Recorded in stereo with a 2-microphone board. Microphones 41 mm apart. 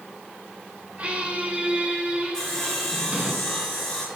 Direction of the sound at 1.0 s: 25° right (ahead or behind).